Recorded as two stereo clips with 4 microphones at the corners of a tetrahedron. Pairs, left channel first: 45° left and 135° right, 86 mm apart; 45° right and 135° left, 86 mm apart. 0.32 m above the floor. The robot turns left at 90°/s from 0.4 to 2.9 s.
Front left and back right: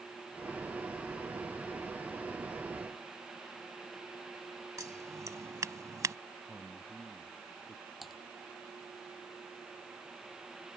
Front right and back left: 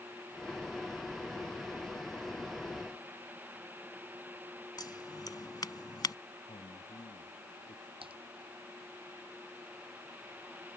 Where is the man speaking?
50° right.